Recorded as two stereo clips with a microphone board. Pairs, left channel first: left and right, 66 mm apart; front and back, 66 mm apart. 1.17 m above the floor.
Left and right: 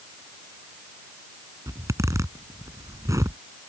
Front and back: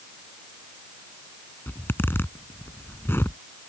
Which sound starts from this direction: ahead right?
A zipper, at 1.7 s.